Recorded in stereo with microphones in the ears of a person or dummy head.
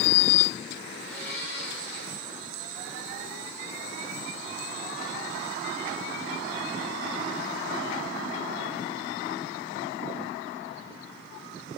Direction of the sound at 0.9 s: 65° left (ahead or behind).